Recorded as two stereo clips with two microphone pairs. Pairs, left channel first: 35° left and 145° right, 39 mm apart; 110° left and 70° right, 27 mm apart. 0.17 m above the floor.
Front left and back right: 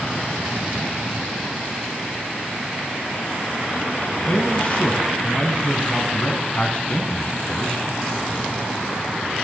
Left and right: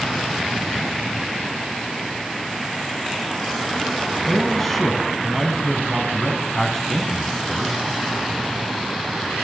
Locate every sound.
4.3 s a man speaking: 45° left, 1.5 m